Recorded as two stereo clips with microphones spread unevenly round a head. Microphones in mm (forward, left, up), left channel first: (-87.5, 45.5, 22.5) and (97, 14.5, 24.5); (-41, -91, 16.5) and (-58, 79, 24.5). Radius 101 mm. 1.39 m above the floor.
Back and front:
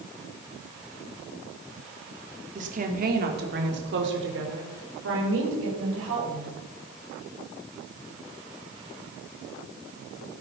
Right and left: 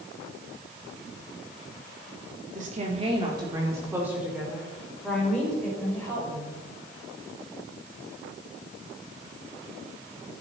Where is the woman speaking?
40° left, 3 m; by 6.6 s 5° right, 6 m.